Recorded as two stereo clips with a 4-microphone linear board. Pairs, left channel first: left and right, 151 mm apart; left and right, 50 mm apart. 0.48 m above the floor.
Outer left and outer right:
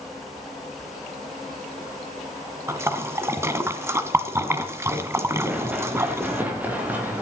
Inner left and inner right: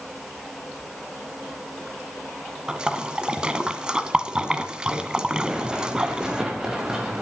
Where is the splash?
15° right (ahead or behind), 1.2 m.